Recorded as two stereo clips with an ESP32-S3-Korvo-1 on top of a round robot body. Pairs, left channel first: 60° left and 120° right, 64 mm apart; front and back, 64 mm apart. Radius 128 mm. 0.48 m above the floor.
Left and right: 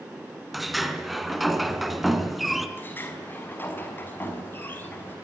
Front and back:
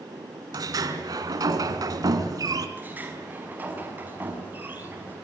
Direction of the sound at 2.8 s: 120° left.